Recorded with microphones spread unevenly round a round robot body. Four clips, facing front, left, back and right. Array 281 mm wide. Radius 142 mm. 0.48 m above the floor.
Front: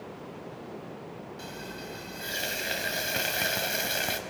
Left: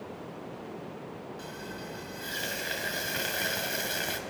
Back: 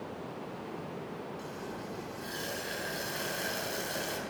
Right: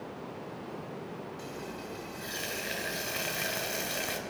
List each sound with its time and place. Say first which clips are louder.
1.4 s frying: even, even; 5° left, 2.5 m